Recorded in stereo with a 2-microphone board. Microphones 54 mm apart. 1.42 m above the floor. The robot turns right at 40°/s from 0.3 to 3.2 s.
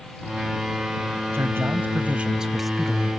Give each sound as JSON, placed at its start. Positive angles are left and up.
{"t": 1.3, "sound": "a man speaking", "azimuth_deg": -55}